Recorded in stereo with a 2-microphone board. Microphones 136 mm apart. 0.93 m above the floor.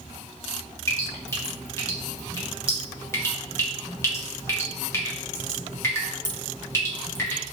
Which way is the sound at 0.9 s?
20° left (ahead or behind).